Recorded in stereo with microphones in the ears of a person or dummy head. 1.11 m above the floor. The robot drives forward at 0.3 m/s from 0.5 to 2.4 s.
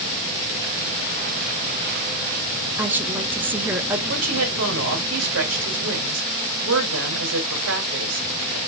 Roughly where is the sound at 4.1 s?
Right.